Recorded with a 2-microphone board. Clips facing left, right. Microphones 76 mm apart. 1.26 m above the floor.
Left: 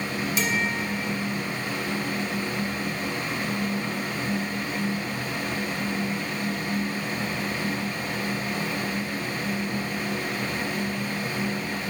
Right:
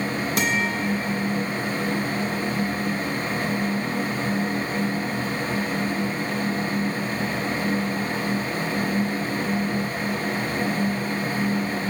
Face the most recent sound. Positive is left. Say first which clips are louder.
# right 3 dB
turn(degrees=-55)  # may be behind; listen again after turning